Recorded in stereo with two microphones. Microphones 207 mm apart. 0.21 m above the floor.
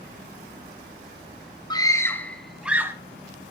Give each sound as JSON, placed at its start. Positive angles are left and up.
{"t": 1.7, "sound": "a scream", "side_deg": 20, "distance_m": 1.6}